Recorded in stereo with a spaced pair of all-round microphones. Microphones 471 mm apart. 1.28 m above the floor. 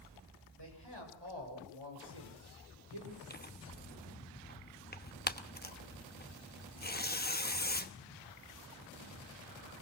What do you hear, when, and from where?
0.6 s a man speaking: 60° right (ahead or behind), 7 m; by 3.2 s 85° right, 6 m
3.3 s tearing paper: 20° left (ahead or behind), 1.0 m